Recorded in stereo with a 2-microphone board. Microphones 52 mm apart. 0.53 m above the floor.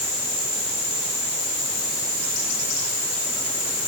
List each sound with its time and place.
Only background noise.